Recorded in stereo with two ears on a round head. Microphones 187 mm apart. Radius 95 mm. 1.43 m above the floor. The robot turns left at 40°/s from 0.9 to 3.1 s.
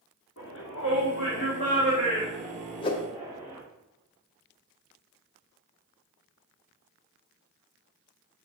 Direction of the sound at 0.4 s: 60° left (ahead or behind).